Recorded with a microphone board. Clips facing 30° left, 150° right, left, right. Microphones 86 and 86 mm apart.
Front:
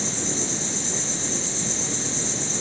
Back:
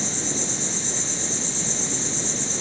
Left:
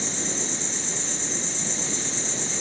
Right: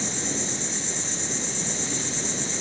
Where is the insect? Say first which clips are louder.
Front 1 dB, right 1 dB; 175° right, 5 m.